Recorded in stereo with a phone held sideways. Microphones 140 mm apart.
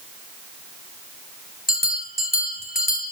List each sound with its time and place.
1.7 s a bell: 85° left, 3.5 m